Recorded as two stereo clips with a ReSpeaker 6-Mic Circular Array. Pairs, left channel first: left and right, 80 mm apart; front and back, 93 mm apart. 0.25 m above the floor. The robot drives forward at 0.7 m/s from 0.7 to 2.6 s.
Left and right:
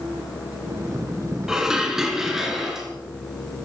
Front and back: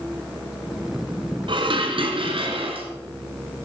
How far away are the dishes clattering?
About 1.4 m.